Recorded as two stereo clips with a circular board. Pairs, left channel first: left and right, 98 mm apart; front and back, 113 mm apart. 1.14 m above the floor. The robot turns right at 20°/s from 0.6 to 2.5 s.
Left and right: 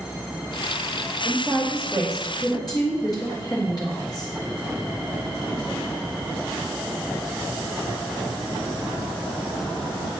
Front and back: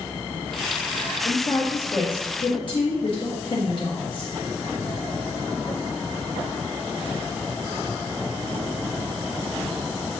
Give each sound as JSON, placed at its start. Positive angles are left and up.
{"t": 1.2, "sound": "a woman speaking", "azimuth_deg": 15, "distance_m": 1.7}